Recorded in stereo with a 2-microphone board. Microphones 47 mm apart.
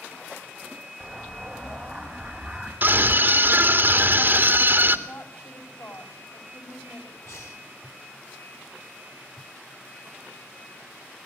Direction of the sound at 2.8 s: 45° right (ahead or behind).